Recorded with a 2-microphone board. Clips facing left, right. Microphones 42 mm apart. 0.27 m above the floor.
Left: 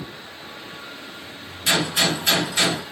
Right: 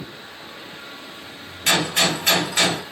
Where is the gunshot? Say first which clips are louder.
Right 1 dB; 50° right (ahead or behind), 1.4 m.